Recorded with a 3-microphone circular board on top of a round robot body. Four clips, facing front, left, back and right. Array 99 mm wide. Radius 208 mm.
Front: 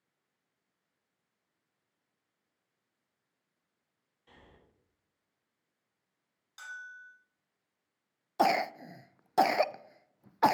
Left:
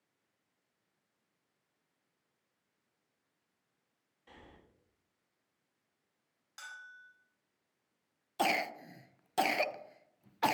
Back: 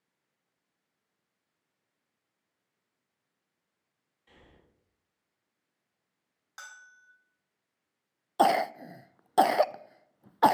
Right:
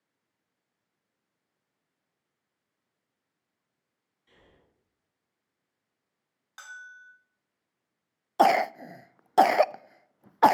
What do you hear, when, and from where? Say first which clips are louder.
4.3 s breathing: left 5 dB, even; 70° left, 7 m
6.6 s a bell: right 5 dB, front 4 dB; 145° right, 3 m
8.4 s a cough: right 12 dB, back 4 dB; 105° right, 0.5 m